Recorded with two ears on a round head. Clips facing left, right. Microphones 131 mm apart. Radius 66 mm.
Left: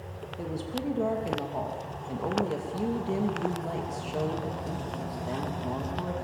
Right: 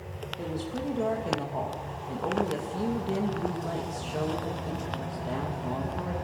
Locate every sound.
0.4 s a woman speaking: 5° left (ahead or behind), 2.5 m